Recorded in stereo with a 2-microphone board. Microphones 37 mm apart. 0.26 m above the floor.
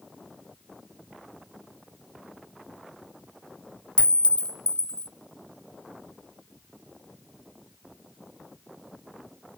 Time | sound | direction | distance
4.0 | a clink | 30° left (ahead or behind) | 0.7 m